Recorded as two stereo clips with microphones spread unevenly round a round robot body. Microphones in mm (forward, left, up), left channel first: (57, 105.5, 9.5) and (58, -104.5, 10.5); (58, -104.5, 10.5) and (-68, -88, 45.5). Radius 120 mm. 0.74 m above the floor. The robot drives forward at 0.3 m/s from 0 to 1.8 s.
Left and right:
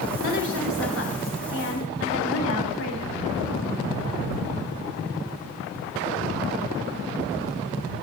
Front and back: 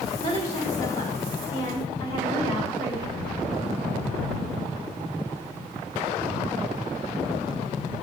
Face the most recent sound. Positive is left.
turn(degrees=130)